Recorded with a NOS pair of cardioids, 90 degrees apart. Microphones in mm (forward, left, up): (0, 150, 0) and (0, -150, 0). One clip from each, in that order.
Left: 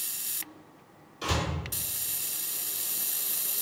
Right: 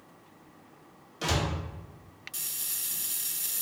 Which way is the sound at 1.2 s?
50° right.